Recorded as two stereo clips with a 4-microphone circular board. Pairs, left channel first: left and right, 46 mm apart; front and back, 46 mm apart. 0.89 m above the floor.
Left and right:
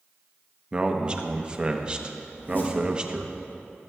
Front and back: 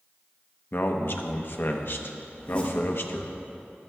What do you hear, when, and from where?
0.7 s a man speaking: 20° right, 0.8 m
2.3 s a zipper: 60° left, 2 m